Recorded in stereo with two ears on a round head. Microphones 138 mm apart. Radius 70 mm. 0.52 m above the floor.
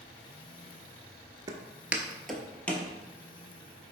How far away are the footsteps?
About 0.5 m.